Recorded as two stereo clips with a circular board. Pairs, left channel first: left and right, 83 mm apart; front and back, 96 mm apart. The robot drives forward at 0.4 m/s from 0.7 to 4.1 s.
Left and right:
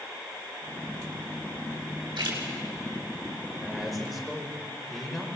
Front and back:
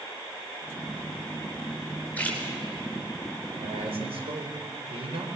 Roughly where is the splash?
Right.